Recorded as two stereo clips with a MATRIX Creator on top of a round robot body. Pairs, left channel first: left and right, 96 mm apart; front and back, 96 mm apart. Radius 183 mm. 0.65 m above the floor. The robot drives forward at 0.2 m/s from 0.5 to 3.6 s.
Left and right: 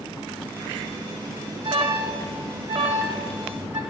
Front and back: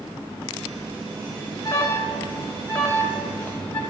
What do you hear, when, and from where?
1.6 s an alarm: 60° right, 2.5 m; by 3.8 s 70° right, 2.5 m